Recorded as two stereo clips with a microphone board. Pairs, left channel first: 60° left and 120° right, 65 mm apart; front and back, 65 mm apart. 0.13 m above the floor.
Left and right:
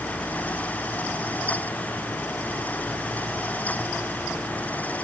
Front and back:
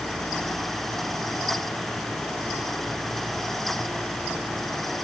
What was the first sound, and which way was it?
Only background noise.